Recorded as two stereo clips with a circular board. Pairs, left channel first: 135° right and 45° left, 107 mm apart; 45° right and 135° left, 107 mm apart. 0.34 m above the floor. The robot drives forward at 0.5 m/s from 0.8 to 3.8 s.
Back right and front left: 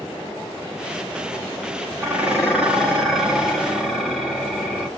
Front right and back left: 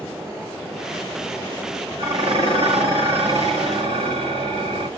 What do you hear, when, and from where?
2.0 s dishes clattering: 115° left, 1.6 m; by 4.9 s 140° left, 2 m